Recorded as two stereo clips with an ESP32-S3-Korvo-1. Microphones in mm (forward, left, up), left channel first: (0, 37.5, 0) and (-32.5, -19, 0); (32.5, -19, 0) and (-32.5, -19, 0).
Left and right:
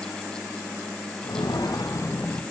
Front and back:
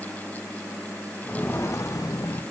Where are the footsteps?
70° left, 0.7 m; by 2.4 s 10° left, 0.9 m.